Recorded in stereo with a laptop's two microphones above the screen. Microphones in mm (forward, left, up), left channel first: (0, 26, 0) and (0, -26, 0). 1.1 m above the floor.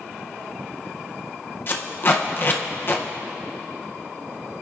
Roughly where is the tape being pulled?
Left.